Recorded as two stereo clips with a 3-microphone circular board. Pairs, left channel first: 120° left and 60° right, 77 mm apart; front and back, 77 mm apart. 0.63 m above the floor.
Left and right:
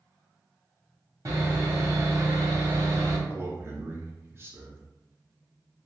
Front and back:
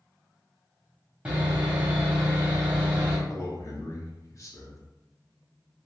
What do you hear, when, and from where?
1.2 s sawing: 105° right, 1.1 m
3.3 s a man speaking: 20° right, 0.9 m